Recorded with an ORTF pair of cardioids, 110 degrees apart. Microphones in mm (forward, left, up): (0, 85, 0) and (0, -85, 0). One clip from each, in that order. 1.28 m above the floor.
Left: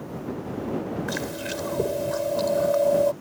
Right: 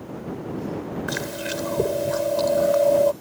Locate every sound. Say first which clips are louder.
1.1 s chewing: right 2 dB; 20° right